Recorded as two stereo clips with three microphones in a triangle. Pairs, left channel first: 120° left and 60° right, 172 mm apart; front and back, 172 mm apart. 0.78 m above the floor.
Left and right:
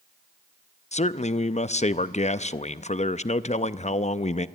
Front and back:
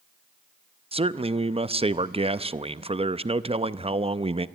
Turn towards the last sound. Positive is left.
turn(degrees=140)